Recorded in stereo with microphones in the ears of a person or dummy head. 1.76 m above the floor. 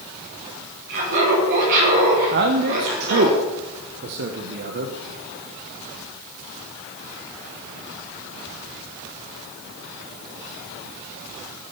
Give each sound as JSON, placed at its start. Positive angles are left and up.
{"t": 0.9, "sound": "laughter", "side_deg": -65, "distance_m": 6.5}
{"t": 2.3, "sound": "a man speaking", "side_deg": -55, "distance_m": 1.1}